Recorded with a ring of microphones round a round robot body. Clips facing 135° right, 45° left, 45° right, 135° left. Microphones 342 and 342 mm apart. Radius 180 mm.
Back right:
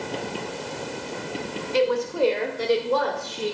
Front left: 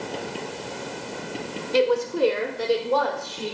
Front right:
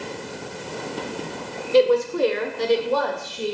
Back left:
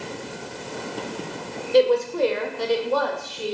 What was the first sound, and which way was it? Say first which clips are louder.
A woman speaking: front left 1 dB, front right 1 dB; 30° left.